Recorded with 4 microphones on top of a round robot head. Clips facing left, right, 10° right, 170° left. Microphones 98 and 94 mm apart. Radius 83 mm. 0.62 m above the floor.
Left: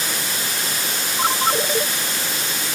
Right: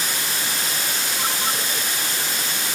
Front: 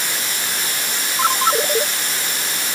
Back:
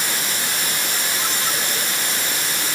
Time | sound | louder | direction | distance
1.2 | a ringtone | left 9 dB, front 8 dB | 25° left | ?